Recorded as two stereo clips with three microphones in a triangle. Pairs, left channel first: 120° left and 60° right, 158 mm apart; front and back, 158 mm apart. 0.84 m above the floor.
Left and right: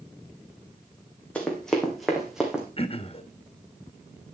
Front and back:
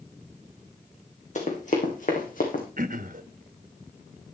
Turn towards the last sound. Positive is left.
turn(degrees=165)